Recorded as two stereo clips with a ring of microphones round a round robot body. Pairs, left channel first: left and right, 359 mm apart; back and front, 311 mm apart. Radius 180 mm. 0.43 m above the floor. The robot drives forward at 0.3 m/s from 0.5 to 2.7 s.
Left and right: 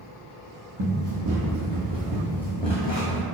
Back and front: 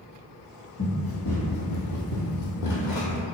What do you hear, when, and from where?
0.8 s running footsteps: 125° right, 1.1 m; by 3.2 s 140° left, 0.9 m